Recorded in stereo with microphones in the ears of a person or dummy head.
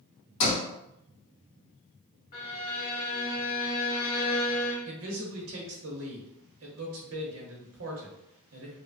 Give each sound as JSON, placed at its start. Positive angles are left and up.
{"t": 0.4, "sound": "a sliding door", "side_deg": 80, "distance_m": 1.7}
{"t": 2.3, "sound": "a violin", "side_deg": 45, "distance_m": 0.8}
{"t": 4.8, "sound": "a man speaking", "side_deg": -70, "distance_m": 0.8}